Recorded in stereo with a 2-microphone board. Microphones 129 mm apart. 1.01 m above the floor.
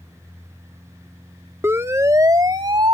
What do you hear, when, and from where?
1.6 s a siren: 20° right (ahead or behind); by 2.9 s 40° right (ahead or behind)